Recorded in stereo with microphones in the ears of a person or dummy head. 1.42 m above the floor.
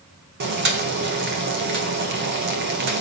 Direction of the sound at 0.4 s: 50° right (ahead or behind).